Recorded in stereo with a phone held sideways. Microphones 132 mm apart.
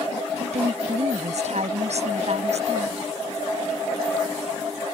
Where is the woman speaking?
65° right (ahead or behind); by 3.0 s 60° right (ahead or behind).